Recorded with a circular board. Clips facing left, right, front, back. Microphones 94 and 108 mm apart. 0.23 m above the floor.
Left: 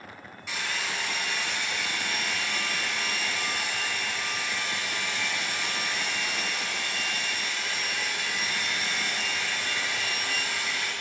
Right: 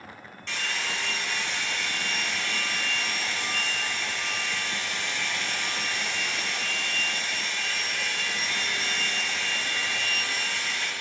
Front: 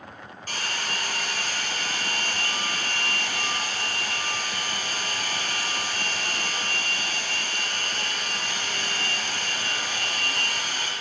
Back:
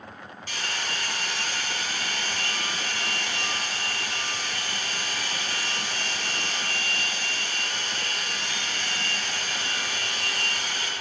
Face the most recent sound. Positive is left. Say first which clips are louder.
# even, front 1 dB
turn(degrees=15)